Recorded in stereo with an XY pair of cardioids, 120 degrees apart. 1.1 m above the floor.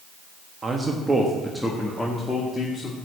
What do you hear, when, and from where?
0.6 s a man speaking: 30° right, 1.3 m; by 3.0 s 30° left, 2 m